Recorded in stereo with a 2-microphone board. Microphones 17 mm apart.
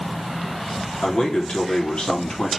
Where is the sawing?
No sawing in this recording.